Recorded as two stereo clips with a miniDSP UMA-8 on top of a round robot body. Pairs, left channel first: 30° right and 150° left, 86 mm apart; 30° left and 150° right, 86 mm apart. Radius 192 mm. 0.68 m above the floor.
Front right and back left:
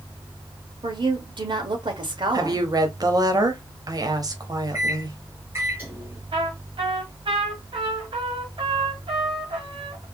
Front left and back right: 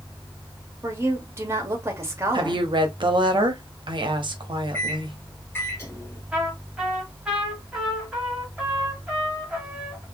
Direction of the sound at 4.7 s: 90° left.